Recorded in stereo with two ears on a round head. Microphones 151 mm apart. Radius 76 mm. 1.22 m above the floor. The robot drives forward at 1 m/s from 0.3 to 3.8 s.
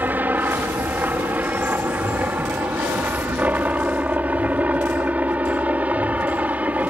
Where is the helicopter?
10° right (ahead or behind).